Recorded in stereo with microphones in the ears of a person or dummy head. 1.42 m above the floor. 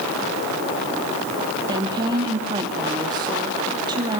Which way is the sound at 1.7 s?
25° right (ahead or behind).